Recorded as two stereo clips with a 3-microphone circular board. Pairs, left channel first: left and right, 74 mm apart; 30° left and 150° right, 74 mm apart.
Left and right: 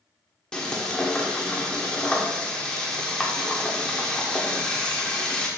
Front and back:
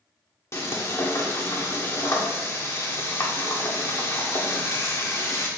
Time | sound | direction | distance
0.5 | frying | 20° left | 1.4 m